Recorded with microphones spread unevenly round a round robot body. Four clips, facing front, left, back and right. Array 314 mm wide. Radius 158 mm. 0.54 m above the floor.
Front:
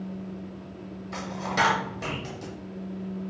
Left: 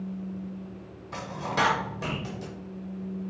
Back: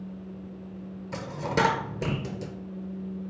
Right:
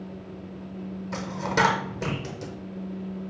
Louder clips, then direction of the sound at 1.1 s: Right 3 dB, even; 150° right.